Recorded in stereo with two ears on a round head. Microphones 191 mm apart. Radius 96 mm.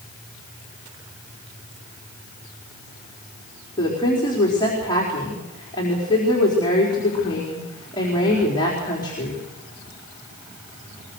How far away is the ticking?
I don't hear ticking.